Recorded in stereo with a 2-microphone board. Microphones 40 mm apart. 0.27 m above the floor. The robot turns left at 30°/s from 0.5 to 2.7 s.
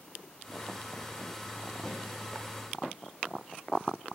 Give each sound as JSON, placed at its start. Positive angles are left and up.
{"t": 1.8, "sound": "a snare drum", "side_deg": 15, "distance_m": 1.2}